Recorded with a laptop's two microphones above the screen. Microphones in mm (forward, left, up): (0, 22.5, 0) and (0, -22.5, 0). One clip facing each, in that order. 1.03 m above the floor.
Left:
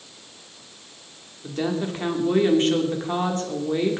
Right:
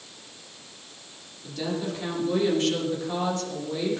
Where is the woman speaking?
45° left (ahead or behind), 3 m.